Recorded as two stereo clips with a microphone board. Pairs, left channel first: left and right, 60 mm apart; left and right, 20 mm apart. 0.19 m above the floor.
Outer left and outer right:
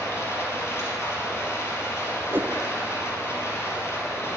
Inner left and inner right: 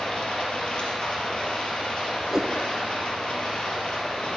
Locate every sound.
0.0 s running water: 45° left (ahead or behind), 3.5 m
2.3 s a whoosh: 35° right (ahead or behind), 0.7 m